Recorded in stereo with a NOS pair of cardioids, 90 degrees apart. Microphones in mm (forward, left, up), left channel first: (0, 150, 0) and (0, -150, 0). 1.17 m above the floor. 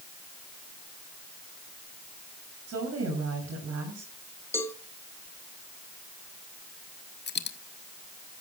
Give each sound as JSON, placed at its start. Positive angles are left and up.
{"t": 2.7, "sound": "a woman speaking", "azimuth_deg": -55, "distance_m": 8.0}
{"t": 4.5, "sound": "a cowbell", "azimuth_deg": 10, "distance_m": 2.0}
{"t": 7.3, "sound": "a dropped coin", "azimuth_deg": 40, "distance_m": 1.4}